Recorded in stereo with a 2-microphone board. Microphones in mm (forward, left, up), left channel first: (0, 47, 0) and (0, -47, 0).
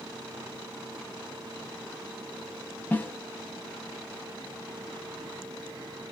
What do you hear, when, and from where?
2.9 s a snare drum: 20° left (ahead or behind), 0.5 m